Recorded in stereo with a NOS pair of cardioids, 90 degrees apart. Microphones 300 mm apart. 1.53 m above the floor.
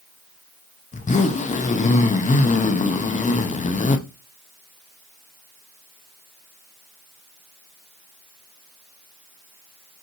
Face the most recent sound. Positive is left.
turn(degrees=25)